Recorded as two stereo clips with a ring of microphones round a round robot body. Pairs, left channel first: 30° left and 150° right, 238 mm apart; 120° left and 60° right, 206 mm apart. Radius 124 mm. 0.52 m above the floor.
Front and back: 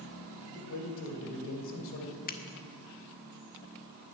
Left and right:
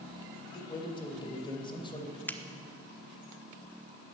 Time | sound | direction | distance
0.5 | a man speaking | 55° left | 2.5 m
2.3 | a finger snap | 45° left | 1.2 m